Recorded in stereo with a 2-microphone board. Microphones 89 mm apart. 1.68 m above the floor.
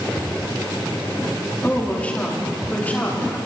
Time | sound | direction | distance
1.6 | a woman speaking | 15° left (ahead or behind) | 4 m